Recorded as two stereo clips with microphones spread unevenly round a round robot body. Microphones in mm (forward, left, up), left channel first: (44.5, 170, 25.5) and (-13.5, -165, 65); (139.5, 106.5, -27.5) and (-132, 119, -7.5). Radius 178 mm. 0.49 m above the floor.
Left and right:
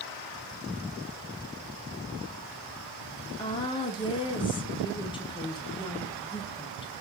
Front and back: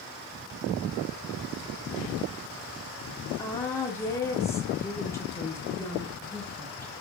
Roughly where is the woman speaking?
Ahead left.